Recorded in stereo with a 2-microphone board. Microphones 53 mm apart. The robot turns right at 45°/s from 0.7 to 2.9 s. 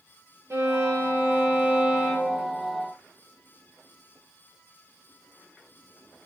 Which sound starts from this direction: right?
A violin, at 0.5 s.